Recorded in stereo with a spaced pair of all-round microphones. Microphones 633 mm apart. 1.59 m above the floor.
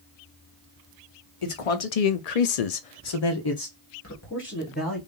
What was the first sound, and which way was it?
A man speaking, 50° left (ahead or behind).